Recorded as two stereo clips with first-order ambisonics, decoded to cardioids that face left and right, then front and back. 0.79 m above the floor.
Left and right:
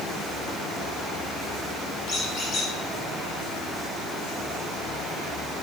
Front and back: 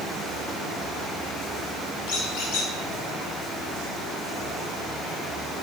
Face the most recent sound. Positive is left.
turn(degrees=25)